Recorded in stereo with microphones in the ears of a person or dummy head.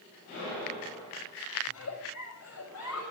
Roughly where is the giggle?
Left.